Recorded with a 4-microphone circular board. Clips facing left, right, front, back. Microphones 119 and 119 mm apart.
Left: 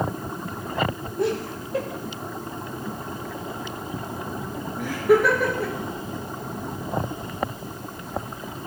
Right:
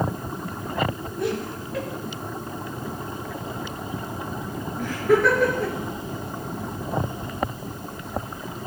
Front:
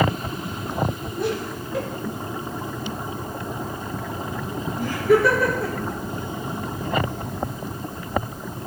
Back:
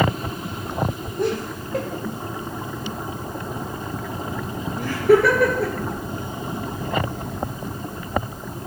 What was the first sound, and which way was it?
Laughter, 145° left.